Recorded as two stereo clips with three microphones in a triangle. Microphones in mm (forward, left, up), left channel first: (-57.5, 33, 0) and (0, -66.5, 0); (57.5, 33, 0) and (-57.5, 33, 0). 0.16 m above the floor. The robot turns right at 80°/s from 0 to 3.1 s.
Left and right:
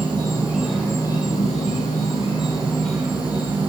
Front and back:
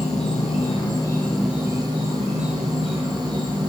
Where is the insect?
25° right, 1.0 m; by 3.7 s 135° right, 1.0 m.